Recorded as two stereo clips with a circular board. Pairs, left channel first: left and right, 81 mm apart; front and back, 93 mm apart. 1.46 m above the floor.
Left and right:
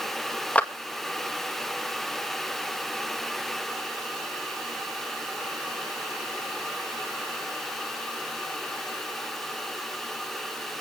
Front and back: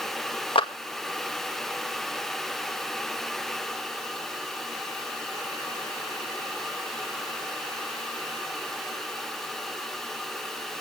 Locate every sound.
0.6 s a clap: 15° left, 2 m